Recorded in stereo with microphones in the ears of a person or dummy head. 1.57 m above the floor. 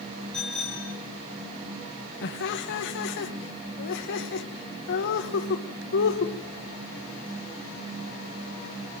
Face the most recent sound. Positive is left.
turn(degrees=65)  # may be behind; listen again after turning